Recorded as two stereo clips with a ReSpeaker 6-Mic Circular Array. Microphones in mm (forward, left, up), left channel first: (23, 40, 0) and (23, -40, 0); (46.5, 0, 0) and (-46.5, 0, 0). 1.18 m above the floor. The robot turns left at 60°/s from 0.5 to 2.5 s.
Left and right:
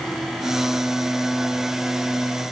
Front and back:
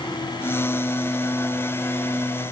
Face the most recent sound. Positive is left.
No sound to turn to.